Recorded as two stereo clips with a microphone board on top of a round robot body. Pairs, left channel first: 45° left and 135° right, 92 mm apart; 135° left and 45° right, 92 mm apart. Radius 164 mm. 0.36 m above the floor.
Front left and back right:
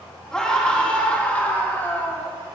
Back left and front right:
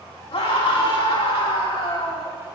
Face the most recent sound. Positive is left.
turn(degrees=110)